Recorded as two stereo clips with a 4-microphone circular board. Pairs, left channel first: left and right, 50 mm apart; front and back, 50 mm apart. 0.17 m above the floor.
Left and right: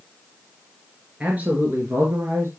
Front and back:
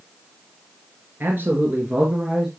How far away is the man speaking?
About 2.5 m.